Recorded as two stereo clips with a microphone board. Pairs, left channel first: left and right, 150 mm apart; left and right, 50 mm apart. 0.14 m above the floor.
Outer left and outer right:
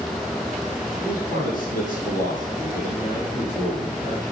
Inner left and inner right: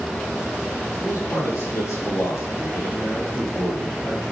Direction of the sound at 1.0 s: 70° left (ahead or behind).